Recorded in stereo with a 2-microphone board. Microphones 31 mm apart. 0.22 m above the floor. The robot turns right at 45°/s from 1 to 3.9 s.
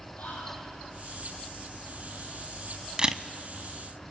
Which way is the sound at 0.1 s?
80° left.